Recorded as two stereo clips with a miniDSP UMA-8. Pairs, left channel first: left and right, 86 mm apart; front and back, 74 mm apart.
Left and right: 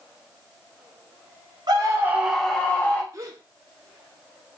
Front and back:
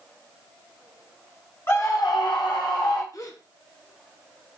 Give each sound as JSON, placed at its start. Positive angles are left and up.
{"t": 1.7, "sound": "a scream", "azimuth_deg": -55, "distance_m": 0.9}
{"t": 3.1, "sound": "a gasp", "azimuth_deg": -40, "distance_m": 0.7}